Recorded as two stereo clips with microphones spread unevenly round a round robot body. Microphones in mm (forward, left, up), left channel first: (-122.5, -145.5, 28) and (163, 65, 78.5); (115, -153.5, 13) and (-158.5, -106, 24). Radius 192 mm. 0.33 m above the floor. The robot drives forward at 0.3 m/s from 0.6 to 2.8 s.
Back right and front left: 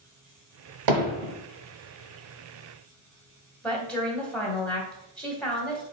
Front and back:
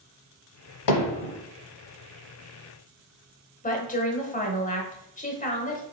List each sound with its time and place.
0.9 s hammering: 5° left, 0.9 m
3.6 s a woman speaking: 65° right, 1.4 m